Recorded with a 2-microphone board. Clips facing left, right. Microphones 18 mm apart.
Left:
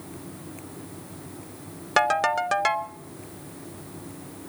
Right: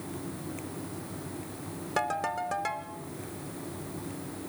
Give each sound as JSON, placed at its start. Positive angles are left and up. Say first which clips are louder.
{"t": 2.0, "sound": "a ringtone", "louder": "left 9 dB", "side_deg": 45, "distance_m": 0.6}